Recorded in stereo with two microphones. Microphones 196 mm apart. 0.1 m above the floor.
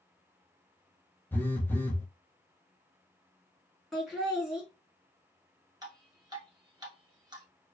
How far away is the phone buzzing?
About 0.6 m.